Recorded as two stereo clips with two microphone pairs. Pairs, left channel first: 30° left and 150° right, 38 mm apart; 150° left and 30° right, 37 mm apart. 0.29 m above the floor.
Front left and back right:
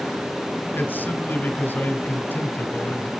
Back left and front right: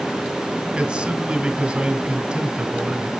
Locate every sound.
0.8 s a man speaking: 35° left, 2 m